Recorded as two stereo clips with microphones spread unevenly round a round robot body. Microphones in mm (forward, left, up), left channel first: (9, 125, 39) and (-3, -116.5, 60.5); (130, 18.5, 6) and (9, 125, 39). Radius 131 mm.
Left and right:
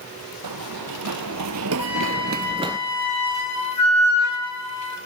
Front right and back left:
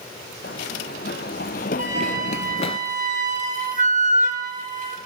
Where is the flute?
100° left, 5 m.